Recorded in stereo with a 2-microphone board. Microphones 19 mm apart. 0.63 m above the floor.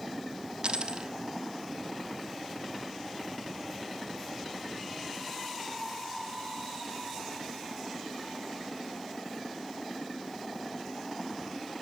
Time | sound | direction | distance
0.6 | a dropped coin | 55° right (ahead or behind) | 1.1 m